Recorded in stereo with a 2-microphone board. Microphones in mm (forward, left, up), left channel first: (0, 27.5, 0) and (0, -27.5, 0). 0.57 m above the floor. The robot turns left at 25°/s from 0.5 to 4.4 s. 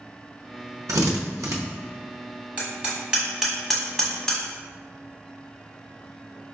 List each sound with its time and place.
0.9 s a drill: 85° right, 0.6 m; by 1.6 s 75° right (ahead or behind), 0.6 m
2.6 s hammering: 30° right (ahead or behind), 1.1 m; by 4.4 s 15° left (ahead or behind), 1.1 m